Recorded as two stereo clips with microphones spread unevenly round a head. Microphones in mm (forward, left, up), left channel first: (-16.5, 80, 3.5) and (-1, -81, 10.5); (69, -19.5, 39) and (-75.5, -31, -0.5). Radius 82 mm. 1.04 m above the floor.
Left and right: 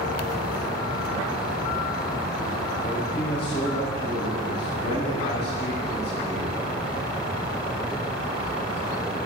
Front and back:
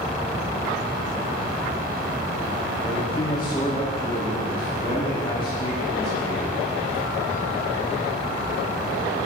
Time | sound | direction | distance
2.8 | a man speaking | 70° left | 4.5 m